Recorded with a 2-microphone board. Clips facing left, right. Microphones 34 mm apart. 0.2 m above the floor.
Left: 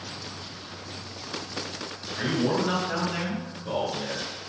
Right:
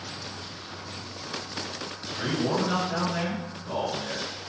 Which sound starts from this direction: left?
A man speaking, at 2.2 s.